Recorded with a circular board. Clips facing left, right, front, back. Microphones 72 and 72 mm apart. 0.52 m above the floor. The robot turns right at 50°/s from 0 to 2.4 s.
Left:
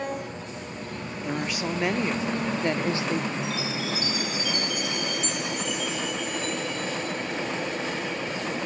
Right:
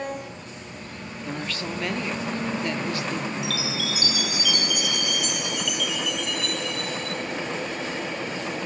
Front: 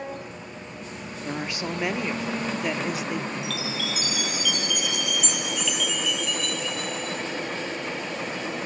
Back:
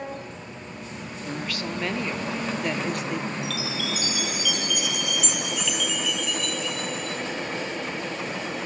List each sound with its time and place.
1.2 s a woman speaking: 25° left, 1.0 m; by 3.3 s 85° left, 1.0 m
3.4 s a chime: 90° right, 1.3 m